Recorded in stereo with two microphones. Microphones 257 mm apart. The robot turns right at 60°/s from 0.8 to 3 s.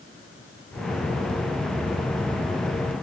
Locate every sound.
Only background noise.